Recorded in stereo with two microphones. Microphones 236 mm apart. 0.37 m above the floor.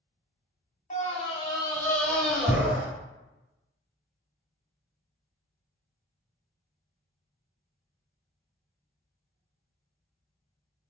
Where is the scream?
30° left (ahead or behind), 1.0 m; by 2.9 s 5° right (ahead or behind), 1.5 m.